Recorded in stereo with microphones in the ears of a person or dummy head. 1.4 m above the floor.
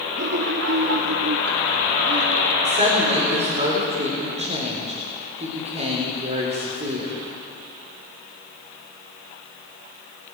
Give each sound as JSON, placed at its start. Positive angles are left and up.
{"t": 0.1, "sound": "laughter", "side_deg": -60, "distance_m": 0.6}
{"t": 2.6, "sound": "a woman speaking", "side_deg": -35, "distance_m": 3.5}